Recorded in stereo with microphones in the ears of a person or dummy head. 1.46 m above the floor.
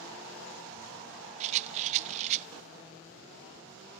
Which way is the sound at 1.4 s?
40° right (ahead or behind).